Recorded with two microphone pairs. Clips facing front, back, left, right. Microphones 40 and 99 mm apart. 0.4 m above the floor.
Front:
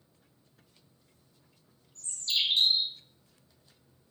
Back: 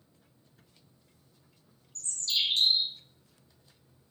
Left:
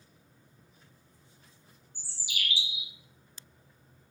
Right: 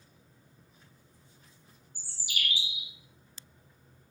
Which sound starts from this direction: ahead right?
A bird, at 1.9 s.